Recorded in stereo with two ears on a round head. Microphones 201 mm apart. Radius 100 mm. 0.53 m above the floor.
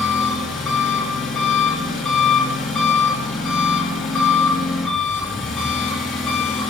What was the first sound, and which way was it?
An engine running, centre (ahead or behind).